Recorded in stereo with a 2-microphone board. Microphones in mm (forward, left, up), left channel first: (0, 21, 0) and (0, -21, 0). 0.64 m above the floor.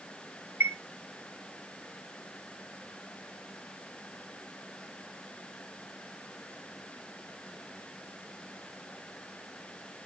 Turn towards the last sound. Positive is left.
turn(degrees=-75)  # may be behind; listen again after turning